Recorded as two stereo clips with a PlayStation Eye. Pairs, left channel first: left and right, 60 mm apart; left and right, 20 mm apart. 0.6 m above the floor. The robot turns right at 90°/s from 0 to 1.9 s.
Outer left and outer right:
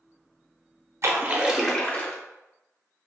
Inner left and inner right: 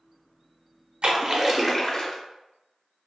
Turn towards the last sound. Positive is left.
turn(degrees=25)